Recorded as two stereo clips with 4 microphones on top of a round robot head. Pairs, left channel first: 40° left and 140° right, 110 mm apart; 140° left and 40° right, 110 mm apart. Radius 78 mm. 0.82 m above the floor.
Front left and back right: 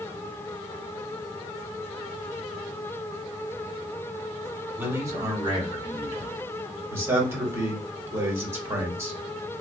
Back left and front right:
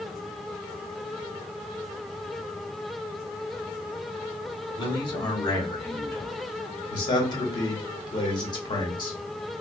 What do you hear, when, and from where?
4.8 s a man speaking: 160° left, 1.3 m; by 6.8 s 145° right, 1.8 m
6.9 s a man speaking: 165° left, 1.2 m